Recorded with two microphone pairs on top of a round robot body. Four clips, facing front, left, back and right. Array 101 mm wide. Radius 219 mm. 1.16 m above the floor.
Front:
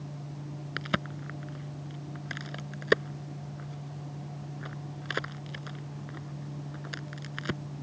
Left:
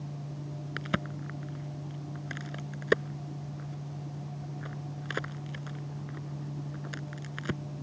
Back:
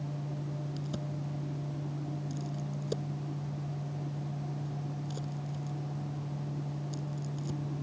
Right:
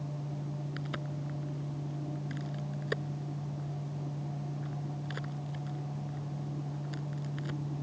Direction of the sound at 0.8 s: 30° left.